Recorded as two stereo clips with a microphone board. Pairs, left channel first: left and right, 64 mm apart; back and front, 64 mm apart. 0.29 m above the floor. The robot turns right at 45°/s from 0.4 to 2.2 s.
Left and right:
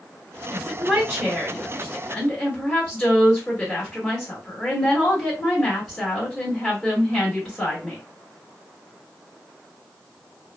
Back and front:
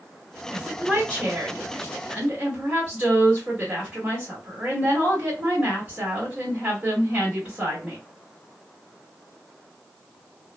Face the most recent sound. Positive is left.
turn(degrees=30)